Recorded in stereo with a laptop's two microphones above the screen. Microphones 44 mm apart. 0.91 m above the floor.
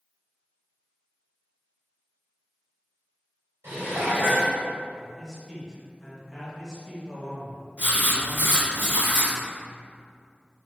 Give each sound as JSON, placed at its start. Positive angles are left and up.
{"t": 3.6, "sound": "dishes clattering", "side_deg": -90, "distance_m": 1.8}
{"t": 5.0, "sound": "a man speaking", "side_deg": -10, "distance_m": 0.7}
{"t": 7.8, "sound": "writing", "side_deg": -50, "distance_m": 1.2}